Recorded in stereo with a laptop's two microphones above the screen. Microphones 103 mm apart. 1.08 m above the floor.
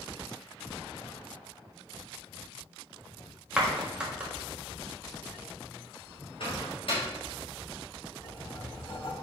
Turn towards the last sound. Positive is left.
turn(degrees=65)  # may be behind; listen again after turning